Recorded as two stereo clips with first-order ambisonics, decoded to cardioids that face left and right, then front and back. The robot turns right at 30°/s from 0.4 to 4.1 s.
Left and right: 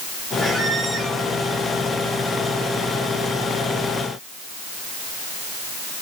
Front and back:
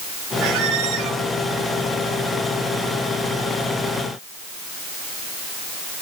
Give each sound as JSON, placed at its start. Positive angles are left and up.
{"t": 0.4, "sound": "a squeak", "azimuth_deg": 180, "distance_m": 0.9}